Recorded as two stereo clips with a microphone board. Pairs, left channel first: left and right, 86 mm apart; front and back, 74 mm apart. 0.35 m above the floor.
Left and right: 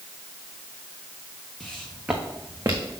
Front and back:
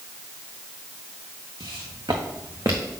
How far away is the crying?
I don't hear crying.